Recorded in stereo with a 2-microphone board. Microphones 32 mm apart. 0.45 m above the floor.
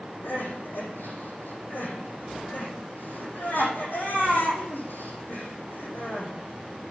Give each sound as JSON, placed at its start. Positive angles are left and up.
{"t": 0.2, "sound": "crying", "side_deg": 85, "distance_m": 8.0}